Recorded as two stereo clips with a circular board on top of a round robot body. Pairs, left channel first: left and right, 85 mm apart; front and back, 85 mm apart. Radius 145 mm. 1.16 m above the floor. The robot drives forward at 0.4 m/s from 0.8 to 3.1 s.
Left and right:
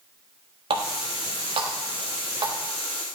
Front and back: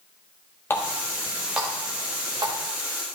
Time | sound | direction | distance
0.7 | a running tap | 70° right | 0.6 m